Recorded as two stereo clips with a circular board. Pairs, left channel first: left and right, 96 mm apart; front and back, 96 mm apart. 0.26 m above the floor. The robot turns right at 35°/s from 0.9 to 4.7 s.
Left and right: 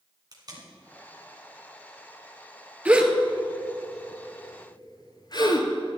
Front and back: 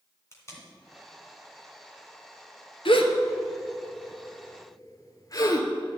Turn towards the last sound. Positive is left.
turn(degrees=50)